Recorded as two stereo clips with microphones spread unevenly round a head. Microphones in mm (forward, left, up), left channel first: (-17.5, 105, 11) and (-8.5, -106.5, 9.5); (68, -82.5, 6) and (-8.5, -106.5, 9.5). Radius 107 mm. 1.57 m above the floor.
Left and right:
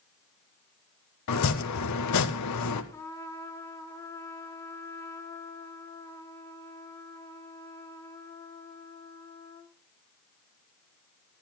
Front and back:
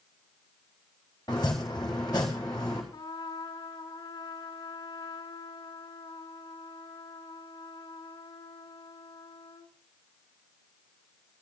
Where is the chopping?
90° left, 1.4 m.